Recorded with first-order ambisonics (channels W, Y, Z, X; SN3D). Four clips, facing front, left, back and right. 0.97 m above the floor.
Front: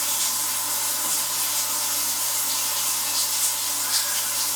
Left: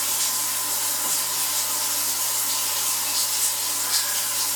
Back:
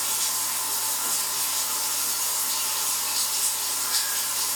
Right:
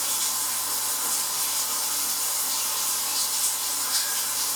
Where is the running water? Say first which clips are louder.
Left 2 dB, front 2 dB; 55° left, 1.0 m.